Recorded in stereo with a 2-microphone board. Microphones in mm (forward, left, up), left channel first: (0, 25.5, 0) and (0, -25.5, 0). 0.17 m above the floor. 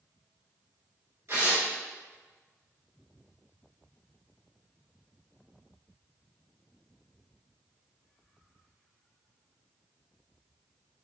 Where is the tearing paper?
65° right (ahead or behind), 1.3 m.